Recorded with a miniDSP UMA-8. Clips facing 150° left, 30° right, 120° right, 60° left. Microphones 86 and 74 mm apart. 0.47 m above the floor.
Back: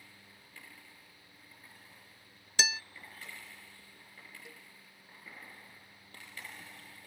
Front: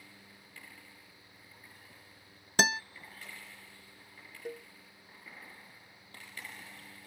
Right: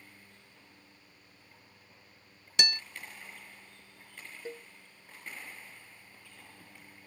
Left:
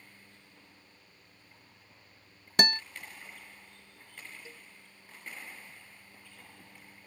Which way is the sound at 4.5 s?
70° right.